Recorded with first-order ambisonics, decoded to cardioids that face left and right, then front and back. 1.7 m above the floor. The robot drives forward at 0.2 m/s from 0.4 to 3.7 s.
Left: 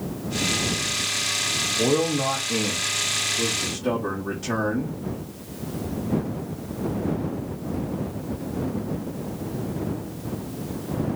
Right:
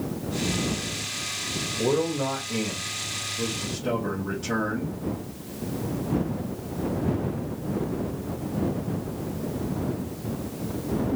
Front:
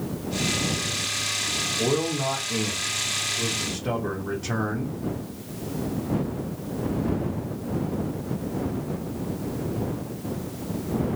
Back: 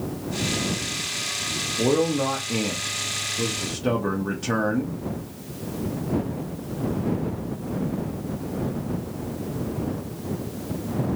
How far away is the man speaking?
About 0.5 m.